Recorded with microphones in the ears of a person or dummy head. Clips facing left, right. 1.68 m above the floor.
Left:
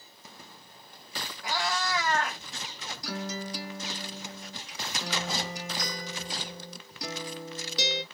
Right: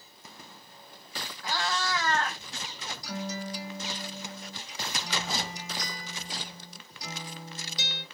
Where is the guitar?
55° left (ahead or behind), 1.0 m.